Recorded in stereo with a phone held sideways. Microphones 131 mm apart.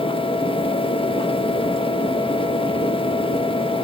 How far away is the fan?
About 0.8 m.